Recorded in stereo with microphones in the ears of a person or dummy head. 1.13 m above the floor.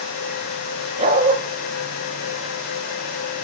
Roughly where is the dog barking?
Right.